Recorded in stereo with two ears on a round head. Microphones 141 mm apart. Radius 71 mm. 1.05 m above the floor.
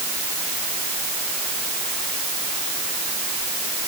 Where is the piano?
I don't hear a piano.